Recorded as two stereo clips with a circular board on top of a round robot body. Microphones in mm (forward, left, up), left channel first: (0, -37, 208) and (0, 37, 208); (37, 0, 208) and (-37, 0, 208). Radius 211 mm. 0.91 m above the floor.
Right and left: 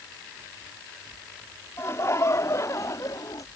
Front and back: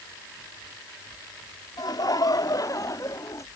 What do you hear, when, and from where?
1.8 s laughter: 35° right; by 3.5 s 50° right